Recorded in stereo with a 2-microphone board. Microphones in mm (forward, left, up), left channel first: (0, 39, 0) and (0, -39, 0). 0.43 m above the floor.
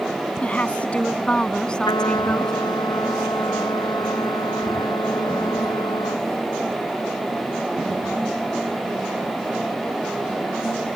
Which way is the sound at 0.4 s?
20° left (ahead or behind).